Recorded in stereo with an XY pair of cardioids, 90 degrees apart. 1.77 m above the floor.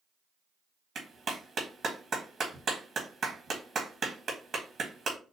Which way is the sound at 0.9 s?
55° right.